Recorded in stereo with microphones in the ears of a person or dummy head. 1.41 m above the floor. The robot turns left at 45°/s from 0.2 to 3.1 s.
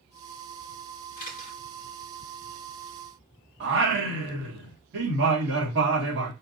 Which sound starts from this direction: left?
A camera shutter, at 1.2 s.